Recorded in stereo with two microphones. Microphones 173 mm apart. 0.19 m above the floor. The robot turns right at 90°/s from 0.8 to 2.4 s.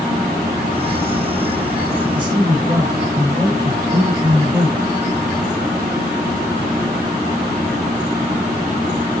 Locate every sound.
2.1 s a man speaking: 30° right (ahead or behind), 2.0 m; by 4.8 s 20° right (ahead or behind), 2.0 m